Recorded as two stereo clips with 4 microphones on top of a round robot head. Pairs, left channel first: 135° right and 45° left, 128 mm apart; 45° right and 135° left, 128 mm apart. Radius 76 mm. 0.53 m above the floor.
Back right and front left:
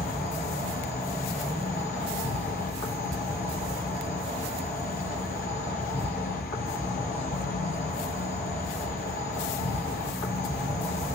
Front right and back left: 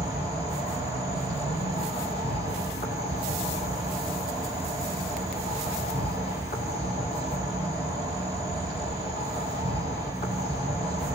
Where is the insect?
100° right, 4 m.